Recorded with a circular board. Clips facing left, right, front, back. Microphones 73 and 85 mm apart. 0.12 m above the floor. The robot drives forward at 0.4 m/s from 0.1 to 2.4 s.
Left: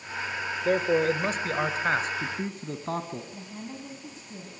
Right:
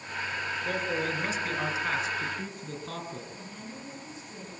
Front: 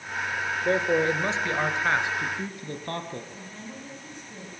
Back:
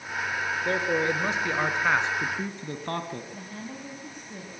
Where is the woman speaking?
140° left, 4.5 m.